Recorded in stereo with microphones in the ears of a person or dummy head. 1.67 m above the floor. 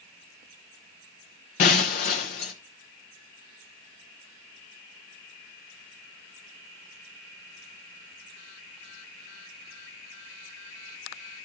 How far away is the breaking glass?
About 1.1 m.